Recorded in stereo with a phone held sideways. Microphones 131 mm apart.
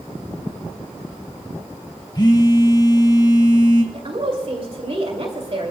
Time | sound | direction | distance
2.1 | a phone buzzing | 30° left (ahead or behind) | 1.5 m
3.9 | a woman speaking | 50° right (ahead or behind) | 2 m